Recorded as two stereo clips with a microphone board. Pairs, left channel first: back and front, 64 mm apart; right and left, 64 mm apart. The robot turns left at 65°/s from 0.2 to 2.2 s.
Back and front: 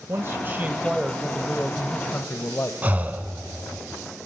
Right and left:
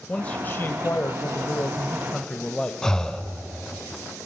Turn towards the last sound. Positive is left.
turn(degrees=-20)